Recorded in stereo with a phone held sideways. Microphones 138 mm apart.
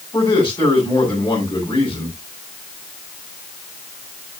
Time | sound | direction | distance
0.1 | a man speaking | 35° left (ahead or behind) | 8 m